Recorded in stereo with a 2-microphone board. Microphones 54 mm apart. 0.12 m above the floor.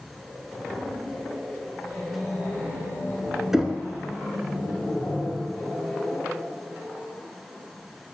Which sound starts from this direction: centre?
Knocking, at 3.5 s.